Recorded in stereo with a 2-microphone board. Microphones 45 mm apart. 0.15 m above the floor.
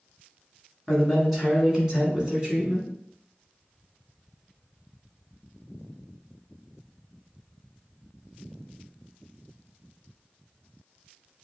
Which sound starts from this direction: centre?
A man speaking, at 0.9 s.